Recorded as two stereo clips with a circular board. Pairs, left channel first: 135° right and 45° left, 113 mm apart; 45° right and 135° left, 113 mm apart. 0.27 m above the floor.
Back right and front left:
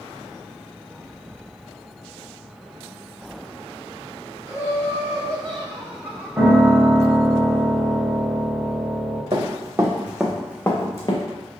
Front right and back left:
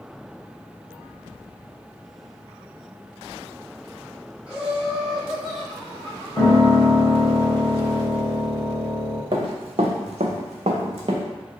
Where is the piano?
15° right, 1.3 m.